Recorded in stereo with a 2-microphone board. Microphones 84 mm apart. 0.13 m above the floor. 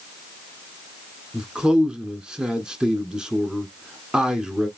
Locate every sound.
1.3 s a man speaking: 10° right (ahead or behind), 1.2 m